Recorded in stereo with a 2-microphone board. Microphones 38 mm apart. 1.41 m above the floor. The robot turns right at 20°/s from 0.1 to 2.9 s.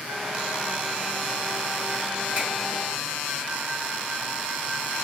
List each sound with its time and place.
2.4 s a finger snap: 50° right (ahead or behind), 1.3 m